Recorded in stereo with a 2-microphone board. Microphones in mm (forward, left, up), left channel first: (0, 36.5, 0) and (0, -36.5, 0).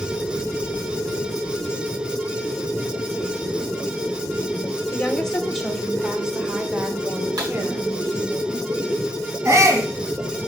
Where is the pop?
65° right (ahead or behind), 5 m.